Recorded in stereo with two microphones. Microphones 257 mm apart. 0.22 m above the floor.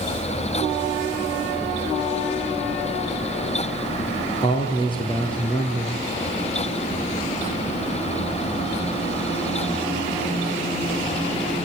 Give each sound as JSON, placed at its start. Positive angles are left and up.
{"t": 4.4, "sound": "a man speaking", "side_deg": 20, "distance_m": 5.0}